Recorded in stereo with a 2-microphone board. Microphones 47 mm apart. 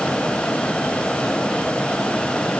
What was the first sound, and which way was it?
Only background noise.